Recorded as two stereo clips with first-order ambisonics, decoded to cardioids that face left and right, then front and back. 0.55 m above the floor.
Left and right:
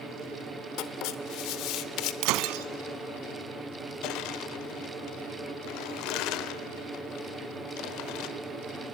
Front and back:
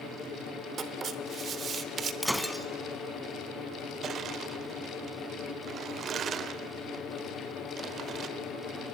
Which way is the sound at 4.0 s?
120° left.